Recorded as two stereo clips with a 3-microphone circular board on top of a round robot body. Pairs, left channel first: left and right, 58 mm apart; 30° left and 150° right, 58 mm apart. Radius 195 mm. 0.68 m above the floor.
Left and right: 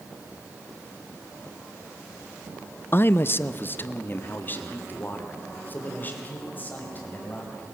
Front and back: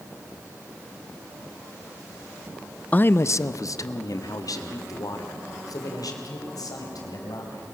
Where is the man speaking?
75° left, 0.6 m; by 7.6 s 30° left, 5 m.